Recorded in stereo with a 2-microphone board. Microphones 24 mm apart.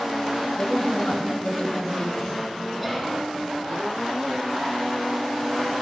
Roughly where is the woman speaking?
Left.